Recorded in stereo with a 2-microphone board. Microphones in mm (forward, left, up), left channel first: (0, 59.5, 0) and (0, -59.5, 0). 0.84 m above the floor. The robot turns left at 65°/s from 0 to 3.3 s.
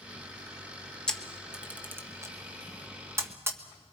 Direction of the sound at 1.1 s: 5° left (ahead or behind).